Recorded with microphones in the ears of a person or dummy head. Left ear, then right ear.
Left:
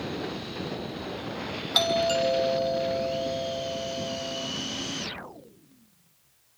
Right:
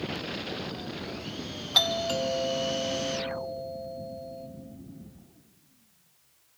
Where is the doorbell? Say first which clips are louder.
Left 2 dB; 5° right (ahead or behind), 3 m.